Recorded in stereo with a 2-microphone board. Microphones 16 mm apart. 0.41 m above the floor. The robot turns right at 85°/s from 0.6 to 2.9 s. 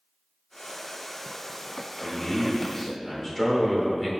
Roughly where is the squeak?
No squeak in this recording.